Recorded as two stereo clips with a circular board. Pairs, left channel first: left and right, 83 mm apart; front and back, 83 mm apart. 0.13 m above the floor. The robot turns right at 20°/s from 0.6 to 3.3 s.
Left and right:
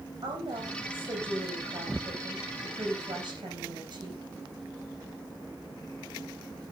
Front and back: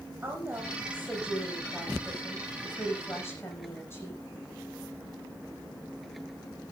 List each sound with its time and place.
0.2 s a woman speaking: 110° right, 6.5 m; by 4.2 s 60° right, 6.5 m